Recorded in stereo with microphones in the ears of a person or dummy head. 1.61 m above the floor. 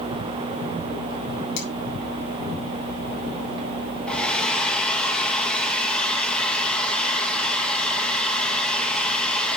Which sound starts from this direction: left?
Cutlery clinking, at 1.6 s.